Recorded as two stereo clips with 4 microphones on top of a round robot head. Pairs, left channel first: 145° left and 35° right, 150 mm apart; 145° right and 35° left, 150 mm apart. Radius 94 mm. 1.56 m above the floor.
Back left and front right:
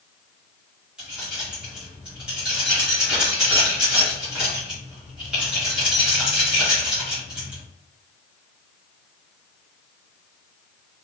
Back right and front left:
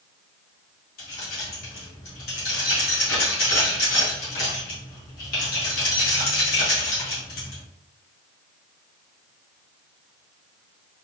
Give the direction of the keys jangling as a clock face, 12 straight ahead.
4 o'clock.